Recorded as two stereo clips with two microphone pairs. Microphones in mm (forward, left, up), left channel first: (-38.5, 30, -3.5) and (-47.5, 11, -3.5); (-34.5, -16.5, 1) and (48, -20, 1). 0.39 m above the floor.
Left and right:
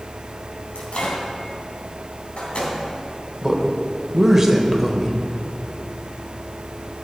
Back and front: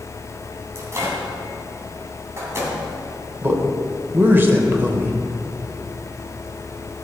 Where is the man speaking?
55° right, 1.3 m.